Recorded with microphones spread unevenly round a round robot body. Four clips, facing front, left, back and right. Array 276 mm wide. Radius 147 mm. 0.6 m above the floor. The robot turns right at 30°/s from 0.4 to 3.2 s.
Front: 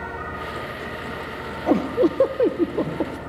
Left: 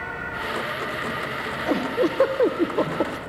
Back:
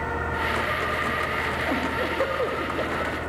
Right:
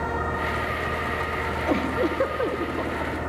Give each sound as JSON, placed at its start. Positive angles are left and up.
{"t": 1.7, "sound": "a giggle", "azimuth_deg": 0, "distance_m": 0.9}